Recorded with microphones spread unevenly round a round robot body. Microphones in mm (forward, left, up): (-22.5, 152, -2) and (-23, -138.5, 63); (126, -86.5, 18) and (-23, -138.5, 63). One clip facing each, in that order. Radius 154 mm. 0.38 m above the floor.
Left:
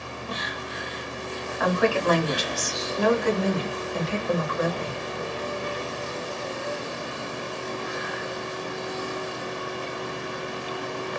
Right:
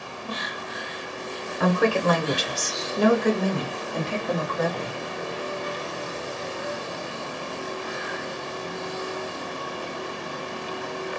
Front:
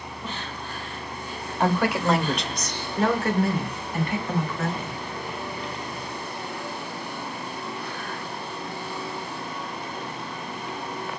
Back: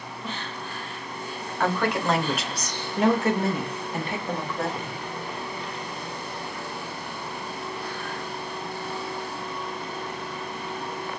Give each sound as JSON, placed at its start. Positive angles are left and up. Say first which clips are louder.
{"t": 1.6, "sound": "a woman speaking", "louder": "right 1 dB, front 2 dB", "azimuth_deg": -30, "distance_m": 1.0}